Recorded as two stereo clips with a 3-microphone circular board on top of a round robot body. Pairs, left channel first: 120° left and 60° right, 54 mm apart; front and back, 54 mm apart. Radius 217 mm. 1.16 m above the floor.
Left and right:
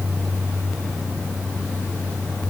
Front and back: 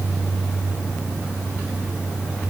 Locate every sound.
Only background noise.